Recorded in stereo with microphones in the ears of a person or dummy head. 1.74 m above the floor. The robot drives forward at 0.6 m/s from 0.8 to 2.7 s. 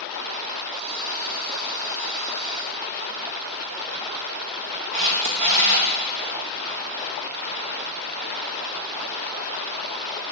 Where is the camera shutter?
35° right (ahead or behind), 0.7 m.